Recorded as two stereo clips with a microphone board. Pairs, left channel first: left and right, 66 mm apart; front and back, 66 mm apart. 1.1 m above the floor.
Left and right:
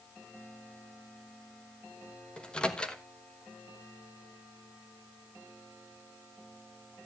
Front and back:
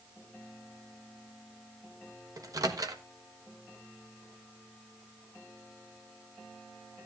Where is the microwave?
160° left, 1.2 m.